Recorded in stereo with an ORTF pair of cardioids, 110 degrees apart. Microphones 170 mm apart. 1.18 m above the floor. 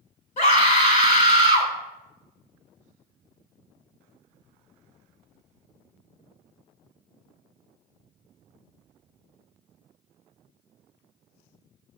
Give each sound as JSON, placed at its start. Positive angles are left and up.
{"t": 0.4, "sound": "a scream", "azimuth_deg": 50, "distance_m": 5.0}